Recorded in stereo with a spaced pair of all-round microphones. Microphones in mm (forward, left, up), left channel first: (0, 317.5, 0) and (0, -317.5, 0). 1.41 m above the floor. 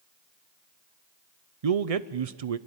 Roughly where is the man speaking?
Right.